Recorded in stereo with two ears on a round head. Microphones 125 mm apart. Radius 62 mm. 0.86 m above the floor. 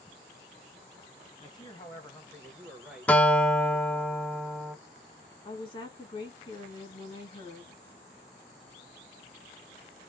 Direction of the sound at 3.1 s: 10° left (ahead or behind).